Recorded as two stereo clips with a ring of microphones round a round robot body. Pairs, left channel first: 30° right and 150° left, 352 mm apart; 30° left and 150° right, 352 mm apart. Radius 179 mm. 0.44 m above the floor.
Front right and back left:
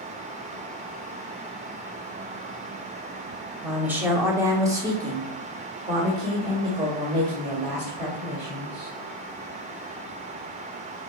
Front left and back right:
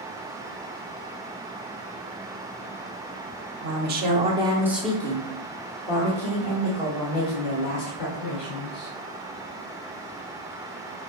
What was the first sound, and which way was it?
A woman speaking, 125° right.